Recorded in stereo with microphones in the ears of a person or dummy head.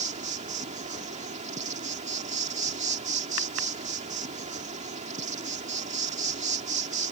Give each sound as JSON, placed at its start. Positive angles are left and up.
{"t": 0.0, "sound": "an insect", "side_deg": -40}